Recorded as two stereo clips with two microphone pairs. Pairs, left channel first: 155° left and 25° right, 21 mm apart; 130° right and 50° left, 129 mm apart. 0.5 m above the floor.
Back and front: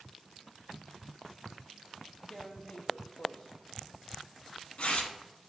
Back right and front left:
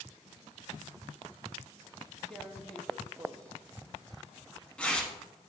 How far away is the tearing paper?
About 0.6 m.